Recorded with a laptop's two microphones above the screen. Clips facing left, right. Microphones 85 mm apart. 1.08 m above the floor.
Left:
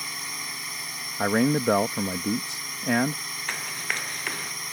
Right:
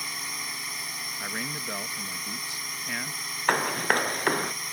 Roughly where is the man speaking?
Left.